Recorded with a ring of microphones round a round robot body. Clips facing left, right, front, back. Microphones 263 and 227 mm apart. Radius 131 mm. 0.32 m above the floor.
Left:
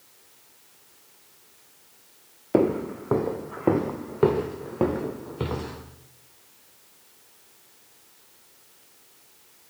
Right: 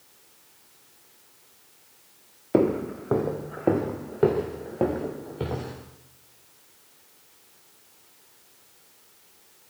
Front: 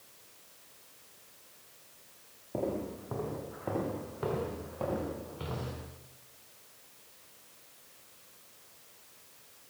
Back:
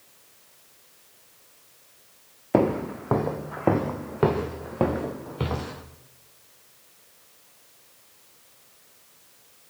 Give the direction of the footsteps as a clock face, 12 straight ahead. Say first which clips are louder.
Even, back 12 dB; 6 o'clock.